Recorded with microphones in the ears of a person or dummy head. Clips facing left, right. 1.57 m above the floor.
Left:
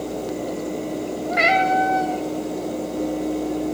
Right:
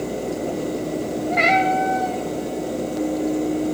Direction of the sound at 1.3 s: 10° left (ahead or behind).